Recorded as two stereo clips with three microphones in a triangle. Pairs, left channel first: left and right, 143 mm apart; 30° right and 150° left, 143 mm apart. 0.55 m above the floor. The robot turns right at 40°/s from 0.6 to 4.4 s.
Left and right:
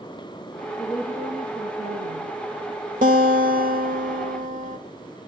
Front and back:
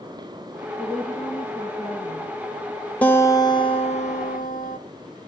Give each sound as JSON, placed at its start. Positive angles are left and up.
{"t": 0.8, "sound": "a woman speaking", "azimuth_deg": -120, "distance_m": 6.0}
{"t": 3.0, "sound": "a guitar", "azimuth_deg": -110, "distance_m": 0.9}